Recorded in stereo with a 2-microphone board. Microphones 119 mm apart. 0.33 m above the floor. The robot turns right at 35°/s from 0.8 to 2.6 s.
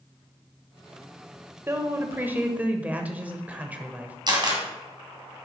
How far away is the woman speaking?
About 0.9 m.